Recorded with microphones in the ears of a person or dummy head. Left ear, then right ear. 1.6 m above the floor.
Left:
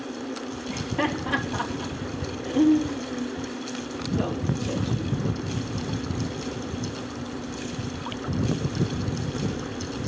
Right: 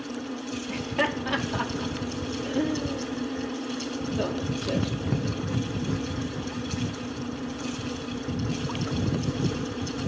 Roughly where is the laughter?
Right.